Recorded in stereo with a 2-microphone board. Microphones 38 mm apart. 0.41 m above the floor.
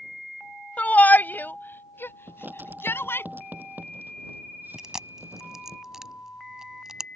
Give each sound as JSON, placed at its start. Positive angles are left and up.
{"t": 0.8, "sound": "a shout", "side_deg": 40}
{"t": 2.3, "sound": "writing", "side_deg": -50}
{"t": 4.8, "sound": "chewing", "side_deg": -15}